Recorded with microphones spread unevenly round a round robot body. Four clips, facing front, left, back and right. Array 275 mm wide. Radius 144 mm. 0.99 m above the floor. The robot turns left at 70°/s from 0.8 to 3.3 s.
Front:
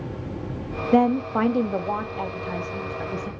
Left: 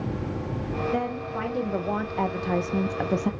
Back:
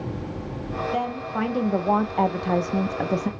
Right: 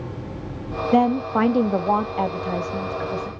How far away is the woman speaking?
About 0.7 m.